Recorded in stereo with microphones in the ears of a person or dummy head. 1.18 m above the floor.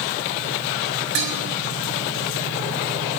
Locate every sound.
1.1 s dishes clattering: 70° right (ahead or behind), 6 m